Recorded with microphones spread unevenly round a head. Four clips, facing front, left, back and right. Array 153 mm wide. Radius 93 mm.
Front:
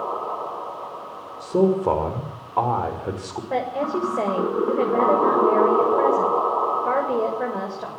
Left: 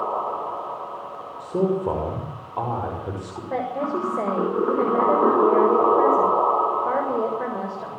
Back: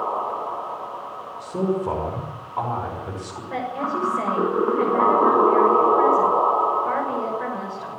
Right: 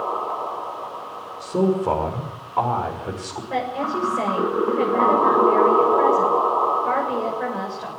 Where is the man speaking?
10° left, 6 m.